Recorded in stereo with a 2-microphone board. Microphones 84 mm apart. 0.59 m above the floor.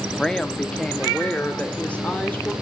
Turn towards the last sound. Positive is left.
turn(degrees=20)  # may be behind; listen again after turning